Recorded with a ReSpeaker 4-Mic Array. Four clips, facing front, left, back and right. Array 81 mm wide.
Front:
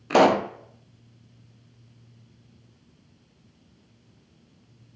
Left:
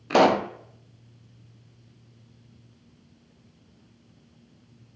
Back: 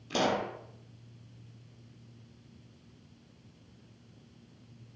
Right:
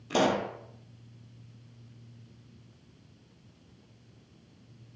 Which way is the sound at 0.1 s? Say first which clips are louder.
Left 8 dB, front 12 dB; 35° left.